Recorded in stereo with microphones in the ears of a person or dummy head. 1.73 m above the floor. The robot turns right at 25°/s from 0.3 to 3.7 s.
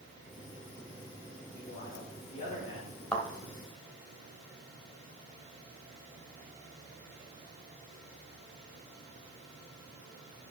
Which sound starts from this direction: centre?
A thud, at 3.1 s.